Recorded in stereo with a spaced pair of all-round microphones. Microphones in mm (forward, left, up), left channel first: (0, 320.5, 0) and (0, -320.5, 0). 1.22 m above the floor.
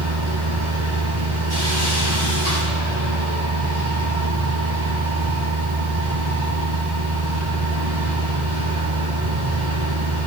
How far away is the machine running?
About 5 m.